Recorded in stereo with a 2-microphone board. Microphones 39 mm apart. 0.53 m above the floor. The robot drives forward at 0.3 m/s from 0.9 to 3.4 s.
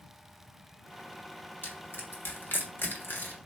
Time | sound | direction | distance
1.6 | crushing | 65° left (ahead or behind) | 1.3 m